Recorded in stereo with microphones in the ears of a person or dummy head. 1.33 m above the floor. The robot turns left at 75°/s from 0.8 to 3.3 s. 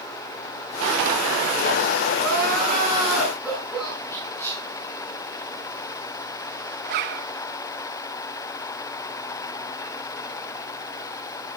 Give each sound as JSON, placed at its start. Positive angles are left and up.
{"t": 2.2, "sound": "crying", "azimuth_deg": -95, "distance_m": 8.5}
{"t": 4.1, "sound": "whispering", "side_deg": 10, "distance_m": 6.5}
{"t": 6.8, "sound": "a zipper", "side_deg": -45, "distance_m": 0.7}